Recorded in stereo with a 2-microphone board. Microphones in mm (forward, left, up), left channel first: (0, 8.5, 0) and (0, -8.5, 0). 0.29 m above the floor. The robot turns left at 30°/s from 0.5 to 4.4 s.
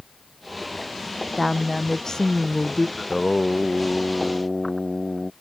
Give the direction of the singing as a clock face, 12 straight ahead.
10 o'clock.